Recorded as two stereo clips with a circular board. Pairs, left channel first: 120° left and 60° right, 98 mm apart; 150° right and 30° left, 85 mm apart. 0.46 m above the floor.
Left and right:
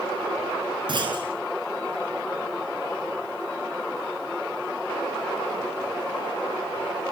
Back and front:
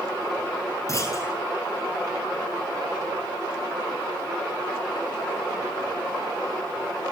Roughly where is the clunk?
Right.